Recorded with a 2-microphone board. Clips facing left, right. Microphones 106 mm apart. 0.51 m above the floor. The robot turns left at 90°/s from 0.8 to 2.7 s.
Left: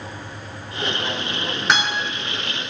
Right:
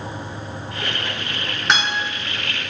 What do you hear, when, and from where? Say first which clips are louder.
1.7 s a guitar: even; centre (ahead or behind), 6 m; by 2.0 s 20° right (ahead or behind), 6 m